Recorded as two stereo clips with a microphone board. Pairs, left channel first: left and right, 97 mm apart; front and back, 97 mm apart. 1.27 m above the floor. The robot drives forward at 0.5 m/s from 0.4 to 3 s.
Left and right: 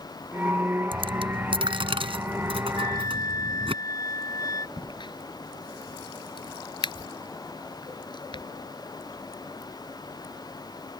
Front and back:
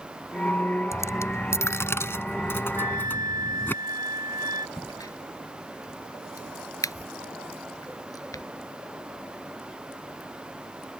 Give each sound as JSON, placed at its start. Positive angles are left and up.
{"t": 0.9, "sound": "a dropped coin", "azimuth_deg": -60}
{"t": 2.8, "sound": "a flute", "azimuth_deg": 135}
{"t": 4.8, "sound": "a crack", "azimuth_deg": 55}